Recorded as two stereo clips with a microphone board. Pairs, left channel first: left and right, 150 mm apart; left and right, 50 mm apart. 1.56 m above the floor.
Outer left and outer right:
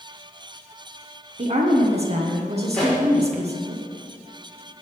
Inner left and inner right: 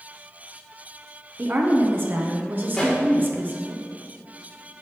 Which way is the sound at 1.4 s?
45° right (ahead or behind).